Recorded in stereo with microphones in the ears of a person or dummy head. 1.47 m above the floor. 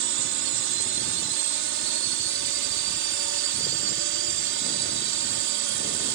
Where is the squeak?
No squeak in this recording.